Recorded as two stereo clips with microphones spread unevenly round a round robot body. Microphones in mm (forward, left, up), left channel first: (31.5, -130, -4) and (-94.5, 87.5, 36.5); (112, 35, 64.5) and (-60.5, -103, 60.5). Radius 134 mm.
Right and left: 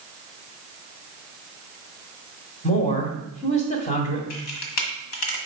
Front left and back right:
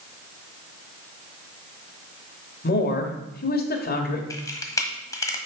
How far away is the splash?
I don't hear a splash.